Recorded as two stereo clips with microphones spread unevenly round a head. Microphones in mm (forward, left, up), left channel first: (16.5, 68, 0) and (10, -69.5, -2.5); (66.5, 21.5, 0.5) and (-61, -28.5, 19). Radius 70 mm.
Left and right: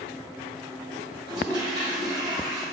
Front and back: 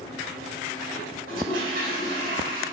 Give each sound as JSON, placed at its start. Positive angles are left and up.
{"t": 1.3, "sound": "a toilet flushing", "azimuth_deg": -155, "distance_m": 3.5}